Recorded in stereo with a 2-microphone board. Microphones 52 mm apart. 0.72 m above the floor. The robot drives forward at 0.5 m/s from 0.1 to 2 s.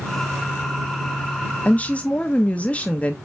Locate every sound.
1.6 s a woman speaking: 30° left (ahead or behind), 0.7 m; by 3.1 s 25° left (ahead or behind), 0.8 m